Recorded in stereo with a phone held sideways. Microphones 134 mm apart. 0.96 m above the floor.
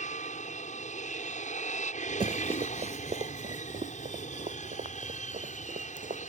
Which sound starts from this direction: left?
An aircraft, at 0.0 s.